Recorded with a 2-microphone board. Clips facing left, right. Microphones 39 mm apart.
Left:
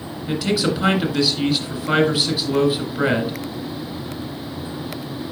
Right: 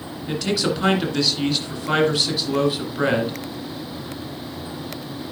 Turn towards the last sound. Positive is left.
turn(degrees=5)  # may be behind; listen again after turning